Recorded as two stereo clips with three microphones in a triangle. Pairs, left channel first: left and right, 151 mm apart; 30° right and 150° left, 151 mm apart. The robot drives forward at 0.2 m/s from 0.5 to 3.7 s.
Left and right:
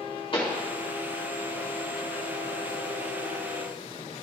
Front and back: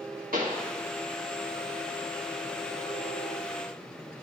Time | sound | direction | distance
0.3 | a pop | 140° left | 1.7 m